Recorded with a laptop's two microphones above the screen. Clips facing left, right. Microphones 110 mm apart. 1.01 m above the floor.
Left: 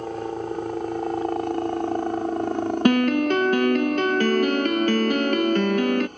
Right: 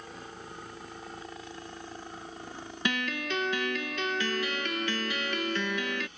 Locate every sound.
0.0 s a helicopter: 60° left (ahead or behind); by 6.2 s 50° left (ahead or behind)
2.9 s a piano: 50° left (ahead or behind)